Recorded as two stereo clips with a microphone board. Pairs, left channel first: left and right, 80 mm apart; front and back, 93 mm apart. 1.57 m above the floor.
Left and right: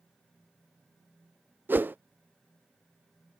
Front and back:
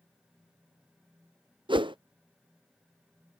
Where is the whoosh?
150° right.